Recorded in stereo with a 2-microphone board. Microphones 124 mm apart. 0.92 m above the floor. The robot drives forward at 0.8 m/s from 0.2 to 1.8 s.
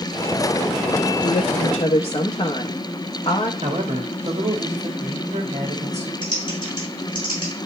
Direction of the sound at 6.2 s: 35° left (ahead or behind).